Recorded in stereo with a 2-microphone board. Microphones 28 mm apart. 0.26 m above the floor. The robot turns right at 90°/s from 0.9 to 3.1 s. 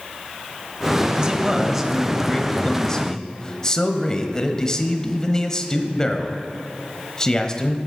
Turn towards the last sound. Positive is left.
turn(degrees=25)  # may be behind; listen again after turning